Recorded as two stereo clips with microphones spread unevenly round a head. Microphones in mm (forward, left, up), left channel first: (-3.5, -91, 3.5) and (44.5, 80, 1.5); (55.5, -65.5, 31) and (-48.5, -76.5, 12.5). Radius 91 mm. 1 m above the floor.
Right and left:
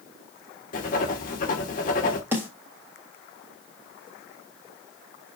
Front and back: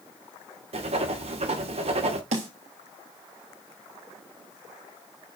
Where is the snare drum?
155° left, 3.5 m.